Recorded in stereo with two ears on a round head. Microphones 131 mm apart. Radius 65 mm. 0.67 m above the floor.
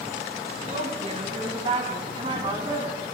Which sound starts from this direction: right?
A woman speaking, at 0.7 s.